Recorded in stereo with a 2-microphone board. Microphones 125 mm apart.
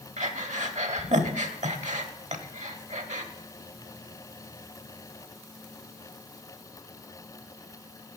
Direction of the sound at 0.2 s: 70° right (ahead or behind).